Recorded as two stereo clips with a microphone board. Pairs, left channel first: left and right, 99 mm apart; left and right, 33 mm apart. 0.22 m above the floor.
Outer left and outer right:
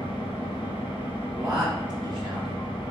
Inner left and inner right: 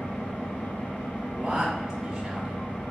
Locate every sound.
0.0 s an engine running: 65° left (ahead or behind), 1.3 m
1.3 s a man speaking: 10° right (ahead or behind), 1.0 m